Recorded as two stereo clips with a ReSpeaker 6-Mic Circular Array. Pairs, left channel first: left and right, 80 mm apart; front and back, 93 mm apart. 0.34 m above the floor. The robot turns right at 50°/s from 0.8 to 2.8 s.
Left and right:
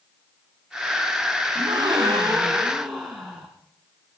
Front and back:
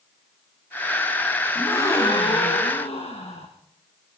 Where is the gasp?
70° right, 6 m; by 3.5 s 10° right, 6 m.